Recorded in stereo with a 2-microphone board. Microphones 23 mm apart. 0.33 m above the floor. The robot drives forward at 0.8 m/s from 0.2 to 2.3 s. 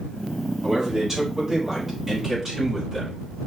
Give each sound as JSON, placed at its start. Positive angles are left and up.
{"t": 0.6, "sound": "a man speaking", "side_deg": -25, "distance_m": 2.5}